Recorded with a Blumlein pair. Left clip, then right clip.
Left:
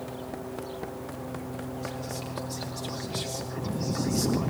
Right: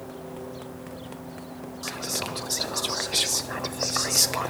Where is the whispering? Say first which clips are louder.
Right 10 dB; 55° right, 1.2 m.